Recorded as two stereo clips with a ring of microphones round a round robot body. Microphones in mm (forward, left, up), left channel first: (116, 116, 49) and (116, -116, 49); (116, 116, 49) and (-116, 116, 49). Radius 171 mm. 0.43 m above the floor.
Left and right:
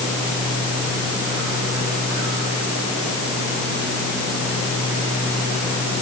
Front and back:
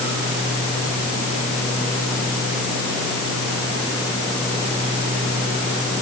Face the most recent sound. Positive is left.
No sound to turn to.